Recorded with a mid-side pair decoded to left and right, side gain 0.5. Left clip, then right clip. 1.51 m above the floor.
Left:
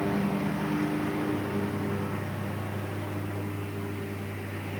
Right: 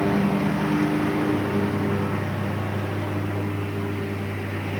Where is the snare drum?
No snare drum in this recording.